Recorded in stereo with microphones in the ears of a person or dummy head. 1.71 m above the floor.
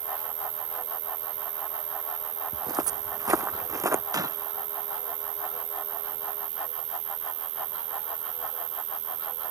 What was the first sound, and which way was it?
An insect, 55° right (ahead or behind).